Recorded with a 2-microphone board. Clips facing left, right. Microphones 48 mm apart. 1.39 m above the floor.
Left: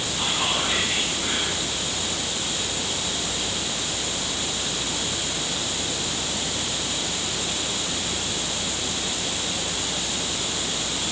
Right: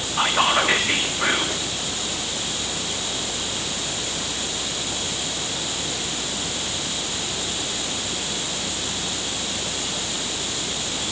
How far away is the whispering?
About 2.5 m.